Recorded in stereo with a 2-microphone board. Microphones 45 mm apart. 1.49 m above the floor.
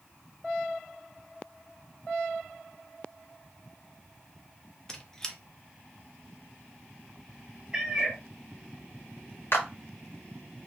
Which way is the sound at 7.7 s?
15° right (ahead or behind).